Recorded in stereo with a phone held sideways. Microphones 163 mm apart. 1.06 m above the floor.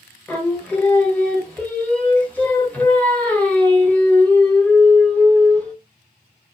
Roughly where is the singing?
Centre.